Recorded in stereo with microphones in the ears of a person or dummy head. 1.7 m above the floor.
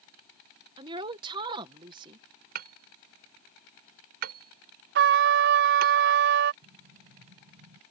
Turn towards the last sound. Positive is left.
turn(degrees=-65)  # may be behind; listen again after turning